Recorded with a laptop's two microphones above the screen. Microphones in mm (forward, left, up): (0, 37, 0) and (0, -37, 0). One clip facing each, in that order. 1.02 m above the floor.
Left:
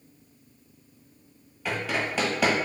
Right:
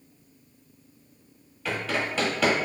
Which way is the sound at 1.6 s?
10° left (ahead or behind).